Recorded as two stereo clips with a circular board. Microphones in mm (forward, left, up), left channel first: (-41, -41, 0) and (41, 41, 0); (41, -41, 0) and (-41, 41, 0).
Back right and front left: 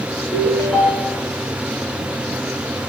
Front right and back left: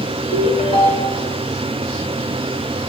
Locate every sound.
0.3 s a ringtone: 60° right, 2 m